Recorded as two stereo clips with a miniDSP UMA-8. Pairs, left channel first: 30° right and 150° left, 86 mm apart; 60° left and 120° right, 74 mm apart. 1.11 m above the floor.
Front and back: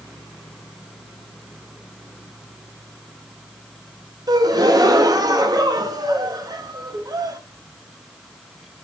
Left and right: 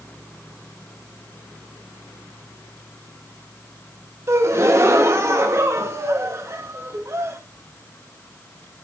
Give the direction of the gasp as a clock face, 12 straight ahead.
6 o'clock.